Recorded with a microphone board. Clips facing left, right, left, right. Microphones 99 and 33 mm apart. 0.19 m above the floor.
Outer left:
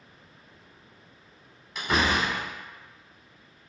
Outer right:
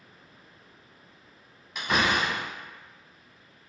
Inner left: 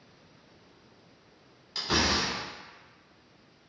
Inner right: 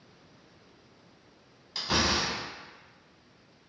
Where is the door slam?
Centre (ahead or behind), 1.1 m.